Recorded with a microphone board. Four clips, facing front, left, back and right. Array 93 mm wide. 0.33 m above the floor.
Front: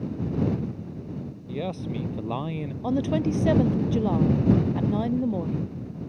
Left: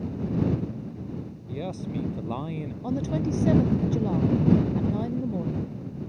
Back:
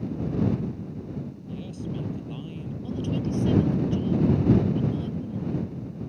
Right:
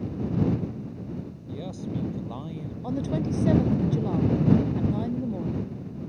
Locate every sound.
1.5 s a man speaking: 20° left; by 2.7 s 25° left
2.8 s a woman speaking: 5° left